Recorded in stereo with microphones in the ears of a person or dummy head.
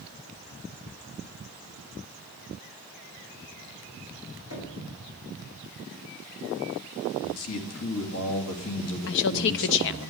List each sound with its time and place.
4.5 s knocking: 65° left (ahead or behind), 5 m
7.2 s a man speaking: 75° left (ahead or behind), 2 m
9.1 s a woman speaking: 65° left (ahead or behind), 0.6 m